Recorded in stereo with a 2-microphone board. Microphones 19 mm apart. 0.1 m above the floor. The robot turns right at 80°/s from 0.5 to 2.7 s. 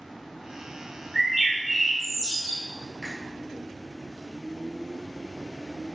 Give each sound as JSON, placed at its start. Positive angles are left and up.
{"t": 1.1, "sound": "a bird", "azimuth_deg": -30, "distance_m": 1.2}
{"t": 3.0, "sound": "a finger snap", "side_deg": -5, "distance_m": 1.3}